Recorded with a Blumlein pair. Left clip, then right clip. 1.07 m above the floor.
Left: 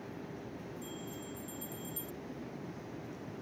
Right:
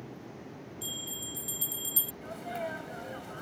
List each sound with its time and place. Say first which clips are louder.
0.8 s a bell: right 7 dB; 55° right
2.2 s a sneeze: right 9 dB; 45° right